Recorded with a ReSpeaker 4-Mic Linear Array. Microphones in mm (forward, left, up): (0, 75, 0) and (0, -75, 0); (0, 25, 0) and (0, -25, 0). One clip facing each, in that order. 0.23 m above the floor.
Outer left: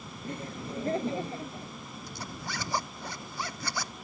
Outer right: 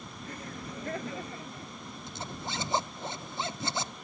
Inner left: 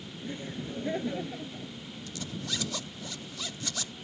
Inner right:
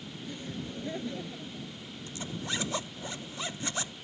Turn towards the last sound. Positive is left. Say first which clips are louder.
# outer right 2 dB, inner right 1 dB
turn(degrees=-25)  # may be behind; listen again after turning